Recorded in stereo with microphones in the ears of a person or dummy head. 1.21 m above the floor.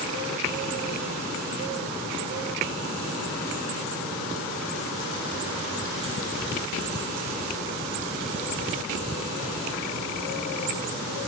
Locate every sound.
Only background noise.